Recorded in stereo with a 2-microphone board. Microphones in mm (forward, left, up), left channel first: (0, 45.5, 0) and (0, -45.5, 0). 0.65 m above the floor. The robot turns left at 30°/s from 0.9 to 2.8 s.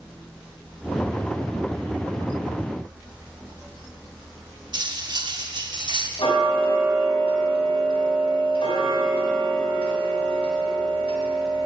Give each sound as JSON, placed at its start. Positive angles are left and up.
{"t": 4.7, "sound": "cutlery clinking", "side_deg": -50, "distance_m": 0.8}
{"t": 6.2, "sound": "ticking", "side_deg": 75, "distance_m": 2.5}